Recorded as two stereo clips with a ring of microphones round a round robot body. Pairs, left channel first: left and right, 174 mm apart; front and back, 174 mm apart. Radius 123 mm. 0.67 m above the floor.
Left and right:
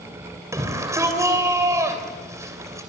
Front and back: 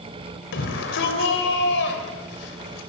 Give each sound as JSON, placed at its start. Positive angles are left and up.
{"t": 0.5, "sound": "a shout", "azimuth_deg": -15, "distance_m": 3.0}